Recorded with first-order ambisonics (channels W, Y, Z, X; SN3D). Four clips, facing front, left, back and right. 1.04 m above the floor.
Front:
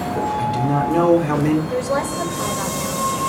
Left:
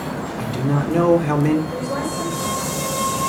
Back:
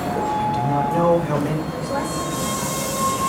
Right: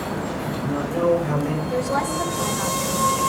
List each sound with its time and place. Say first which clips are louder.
0.4 s a man speaking: left 3 dB, front 2 dB; 45° left, 3 m
1.7 s a woman speaking: right 2 dB, front 3 dB; 5° right, 4.5 m